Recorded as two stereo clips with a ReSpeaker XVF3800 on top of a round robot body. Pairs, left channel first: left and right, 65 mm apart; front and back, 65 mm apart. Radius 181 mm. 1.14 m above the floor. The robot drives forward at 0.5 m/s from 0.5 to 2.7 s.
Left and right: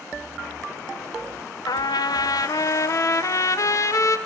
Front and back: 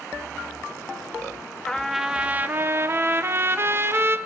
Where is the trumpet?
80° left, 0.6 m; by 4.2 s 125° left, 0.8 m.